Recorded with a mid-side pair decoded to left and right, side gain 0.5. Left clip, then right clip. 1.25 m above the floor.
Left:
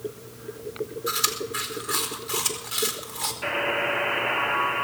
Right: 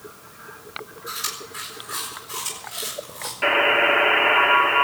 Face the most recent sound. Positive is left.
turn(degrees=-55)